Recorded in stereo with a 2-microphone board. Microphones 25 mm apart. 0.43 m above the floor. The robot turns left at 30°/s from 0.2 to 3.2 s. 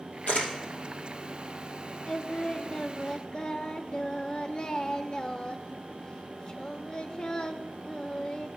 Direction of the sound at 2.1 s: 140° left.